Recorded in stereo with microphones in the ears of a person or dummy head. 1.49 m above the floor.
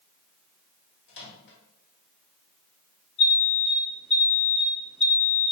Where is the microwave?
60° left (ahead or behind), 1.3 m.